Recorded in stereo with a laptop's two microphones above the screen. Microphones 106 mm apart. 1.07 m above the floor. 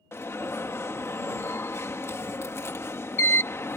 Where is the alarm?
25° left (ahead or behind).